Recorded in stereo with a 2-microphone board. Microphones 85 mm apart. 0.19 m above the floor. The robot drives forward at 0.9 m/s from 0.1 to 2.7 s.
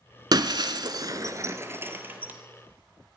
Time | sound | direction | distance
0.3 | breaking glass | 60° right (ahead or behind) | 0.8 m